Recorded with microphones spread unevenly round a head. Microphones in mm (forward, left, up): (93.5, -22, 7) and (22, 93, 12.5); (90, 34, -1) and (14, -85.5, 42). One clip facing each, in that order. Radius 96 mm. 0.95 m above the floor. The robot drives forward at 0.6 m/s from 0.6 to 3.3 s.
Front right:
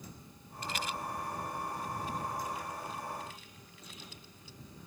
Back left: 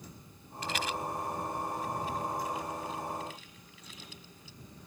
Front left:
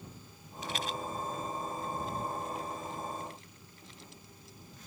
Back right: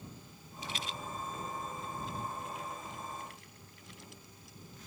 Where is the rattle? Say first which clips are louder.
Back left 3 dB, front left 5 dB; 115° left; by 4.9 s 130° left.